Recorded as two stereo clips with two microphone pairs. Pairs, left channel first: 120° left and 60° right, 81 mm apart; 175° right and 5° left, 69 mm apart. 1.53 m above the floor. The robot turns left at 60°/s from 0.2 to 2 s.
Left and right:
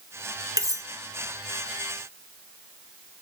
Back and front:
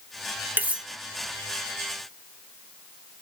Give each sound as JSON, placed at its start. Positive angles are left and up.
{"t": 0.6, "sound": "cutlery clinking", "azimuth_deg": -45, "distance_m": 0.7}